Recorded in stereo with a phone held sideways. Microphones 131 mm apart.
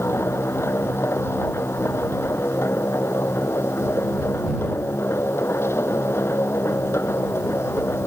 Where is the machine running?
20° left (ahead or behind).